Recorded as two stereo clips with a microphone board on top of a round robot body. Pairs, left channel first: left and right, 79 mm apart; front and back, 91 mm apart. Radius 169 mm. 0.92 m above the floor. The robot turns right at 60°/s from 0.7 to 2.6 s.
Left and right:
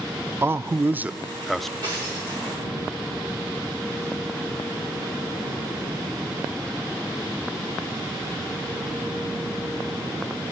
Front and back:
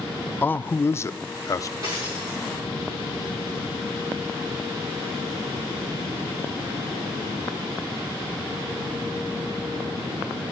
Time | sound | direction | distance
0.4 | a man speaking | 55° right | 0.5 m
1.8 | a dropped coin | 130° right | 6.5 m